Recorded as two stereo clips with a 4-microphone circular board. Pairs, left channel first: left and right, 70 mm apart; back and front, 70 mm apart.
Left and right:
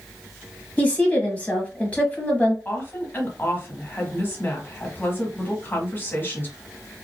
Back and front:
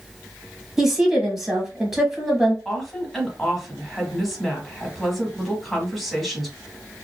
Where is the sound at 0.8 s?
75° left, 1.1 m.